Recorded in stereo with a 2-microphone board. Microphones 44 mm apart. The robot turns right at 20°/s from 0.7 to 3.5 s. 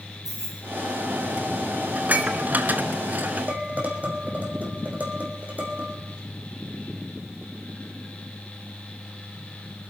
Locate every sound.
0.2 s keys jangling: 10° right (ahead or behind), 7.5 m
1.9 s dishes clattering: 35° right (ahead or behind), 1.2 m; by 3.5 s 40° right (ahead or behind), 1.2 m
3.5 s dishes clattering: 35° right (ahead or behind), 4 m